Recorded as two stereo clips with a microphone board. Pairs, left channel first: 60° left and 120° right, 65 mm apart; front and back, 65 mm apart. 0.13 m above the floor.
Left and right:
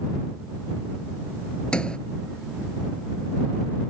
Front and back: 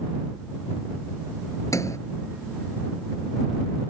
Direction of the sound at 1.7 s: 10° right.